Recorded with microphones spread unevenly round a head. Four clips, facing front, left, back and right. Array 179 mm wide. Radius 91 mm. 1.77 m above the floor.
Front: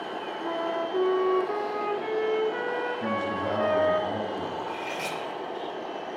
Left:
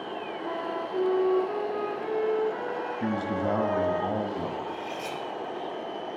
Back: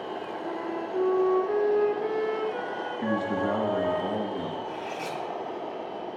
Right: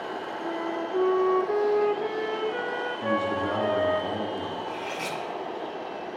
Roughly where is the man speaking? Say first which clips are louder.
Right 3 dB, back 1 dB; left.